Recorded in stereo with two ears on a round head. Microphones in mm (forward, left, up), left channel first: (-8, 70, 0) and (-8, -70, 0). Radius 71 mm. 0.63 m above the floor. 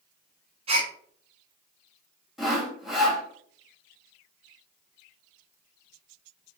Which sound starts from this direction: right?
A gasp, at 0.7 s.